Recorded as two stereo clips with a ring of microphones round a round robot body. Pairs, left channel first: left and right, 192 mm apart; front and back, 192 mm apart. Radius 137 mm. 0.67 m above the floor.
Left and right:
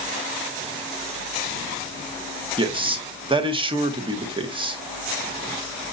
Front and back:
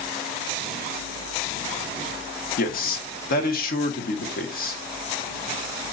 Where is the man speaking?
30° right, 1.1 m.